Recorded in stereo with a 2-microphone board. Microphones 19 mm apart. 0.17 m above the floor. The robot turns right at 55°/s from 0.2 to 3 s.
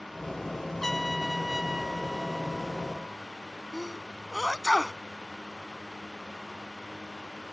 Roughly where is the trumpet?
Behind left.